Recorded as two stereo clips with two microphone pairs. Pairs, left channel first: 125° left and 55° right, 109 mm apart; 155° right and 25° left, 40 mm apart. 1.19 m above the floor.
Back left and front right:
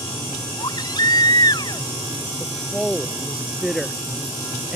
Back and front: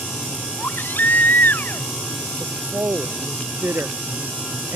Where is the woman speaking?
35° left.